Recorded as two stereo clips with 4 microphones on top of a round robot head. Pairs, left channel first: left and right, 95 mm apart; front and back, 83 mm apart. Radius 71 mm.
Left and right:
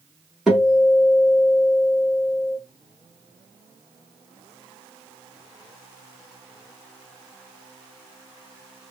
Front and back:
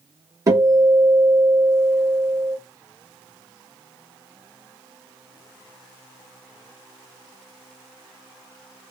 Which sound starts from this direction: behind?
A guitar, at 0.5 s.